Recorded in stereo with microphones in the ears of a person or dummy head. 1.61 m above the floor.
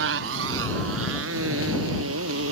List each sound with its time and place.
0.0 s a motorcycle: 70° right (ahead or behind); by 2.5 s 80° right